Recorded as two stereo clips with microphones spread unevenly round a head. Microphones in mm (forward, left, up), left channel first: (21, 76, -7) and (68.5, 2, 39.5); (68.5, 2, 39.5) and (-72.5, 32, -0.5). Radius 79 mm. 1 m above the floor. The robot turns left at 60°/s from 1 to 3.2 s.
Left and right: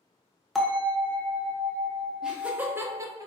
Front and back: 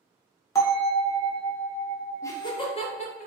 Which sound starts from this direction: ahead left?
A bell, at 0.6 s.